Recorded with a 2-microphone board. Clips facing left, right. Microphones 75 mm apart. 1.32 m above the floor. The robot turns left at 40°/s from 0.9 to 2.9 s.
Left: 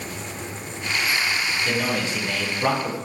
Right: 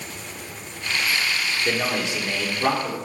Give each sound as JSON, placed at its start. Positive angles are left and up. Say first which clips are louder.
{"t": 1.6, "sound": "a man speaking", "louder": "right 1 dB", "azimuth_deg": -145, "distance_m": 0.8}